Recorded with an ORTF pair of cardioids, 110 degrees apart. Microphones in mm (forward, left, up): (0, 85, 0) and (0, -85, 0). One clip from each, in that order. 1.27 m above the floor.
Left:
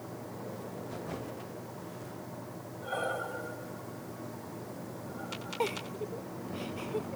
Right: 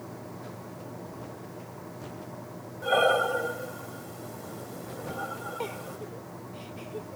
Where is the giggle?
20° left.